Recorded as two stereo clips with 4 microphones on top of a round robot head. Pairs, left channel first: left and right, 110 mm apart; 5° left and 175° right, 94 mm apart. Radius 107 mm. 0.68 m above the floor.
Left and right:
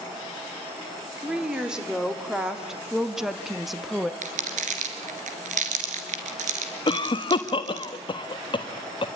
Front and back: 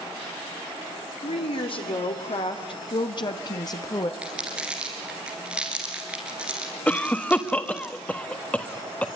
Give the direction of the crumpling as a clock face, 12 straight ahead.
3 o'clock.